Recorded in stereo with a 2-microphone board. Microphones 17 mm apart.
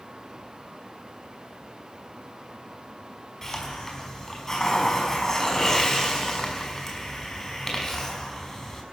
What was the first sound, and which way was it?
A hiss, 20° left (ahead or behind).